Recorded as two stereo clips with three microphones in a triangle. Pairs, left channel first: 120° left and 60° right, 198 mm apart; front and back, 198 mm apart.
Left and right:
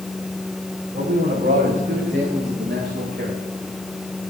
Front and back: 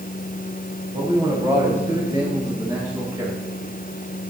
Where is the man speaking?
110° right, 8 m; by 3.4 s 100° right, 9.5 m.